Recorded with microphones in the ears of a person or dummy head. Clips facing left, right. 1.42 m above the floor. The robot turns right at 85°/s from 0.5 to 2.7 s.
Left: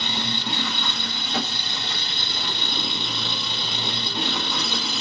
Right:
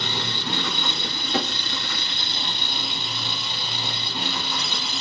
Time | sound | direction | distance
0.0 | an engine running | 165° left | 1.7 m